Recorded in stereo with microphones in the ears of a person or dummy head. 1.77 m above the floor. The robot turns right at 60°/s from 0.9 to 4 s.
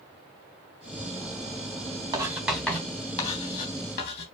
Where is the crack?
I don't hear a crack.